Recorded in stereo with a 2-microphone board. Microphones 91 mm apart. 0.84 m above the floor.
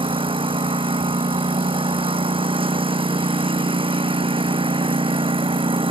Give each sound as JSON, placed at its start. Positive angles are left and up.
{"t": 0.0, "sound": "a lawn mower", "side_deg": -75}